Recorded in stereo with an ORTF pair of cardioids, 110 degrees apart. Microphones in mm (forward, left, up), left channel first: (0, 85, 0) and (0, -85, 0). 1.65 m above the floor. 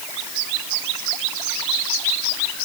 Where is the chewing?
No chewing in this recording.